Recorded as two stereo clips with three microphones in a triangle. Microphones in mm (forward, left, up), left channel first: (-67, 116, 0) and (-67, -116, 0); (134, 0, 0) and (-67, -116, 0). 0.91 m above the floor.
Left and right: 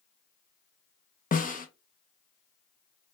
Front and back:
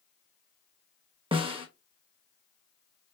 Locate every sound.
1.3 s a snare drum: 145° left, 0.6 m